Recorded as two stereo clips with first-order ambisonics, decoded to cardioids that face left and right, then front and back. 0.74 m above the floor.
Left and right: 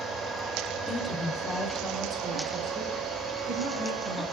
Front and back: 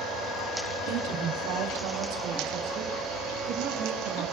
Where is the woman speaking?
Straight behind, 2 m; by 4.2 s 155° right, 5 m.